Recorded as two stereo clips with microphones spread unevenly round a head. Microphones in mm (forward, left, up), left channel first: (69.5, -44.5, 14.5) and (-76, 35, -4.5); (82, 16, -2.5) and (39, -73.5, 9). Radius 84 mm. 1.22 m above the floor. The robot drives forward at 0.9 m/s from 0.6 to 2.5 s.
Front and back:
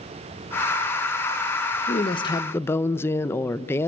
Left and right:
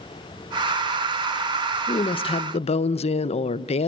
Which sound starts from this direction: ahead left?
A woman speaking, at 1.9 s.